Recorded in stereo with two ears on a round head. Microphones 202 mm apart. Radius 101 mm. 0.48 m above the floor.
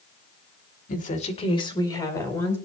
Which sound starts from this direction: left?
A woman speaking, at 0.9 s.